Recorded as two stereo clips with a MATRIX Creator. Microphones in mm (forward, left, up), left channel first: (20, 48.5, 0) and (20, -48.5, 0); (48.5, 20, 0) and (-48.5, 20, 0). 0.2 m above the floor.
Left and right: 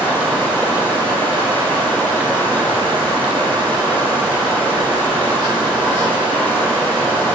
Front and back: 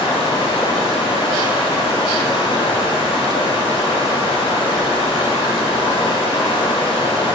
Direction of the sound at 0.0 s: 20° left.